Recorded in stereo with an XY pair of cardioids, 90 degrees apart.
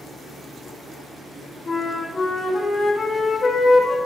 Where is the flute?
40° left, 1.7 m.